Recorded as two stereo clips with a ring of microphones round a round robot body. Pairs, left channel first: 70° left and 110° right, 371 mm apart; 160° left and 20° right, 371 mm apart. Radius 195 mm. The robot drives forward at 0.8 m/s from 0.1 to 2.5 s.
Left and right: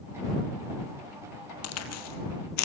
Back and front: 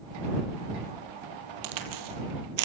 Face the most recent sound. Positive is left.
turn(degrees=20)